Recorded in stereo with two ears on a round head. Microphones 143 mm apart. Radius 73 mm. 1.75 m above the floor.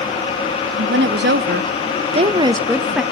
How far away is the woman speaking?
About 1.0 m.